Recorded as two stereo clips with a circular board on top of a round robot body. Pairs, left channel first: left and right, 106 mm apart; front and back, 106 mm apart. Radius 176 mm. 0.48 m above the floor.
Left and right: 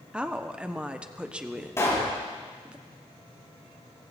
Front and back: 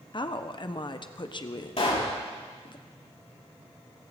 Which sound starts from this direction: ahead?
A woman speaking, at 0.1 s.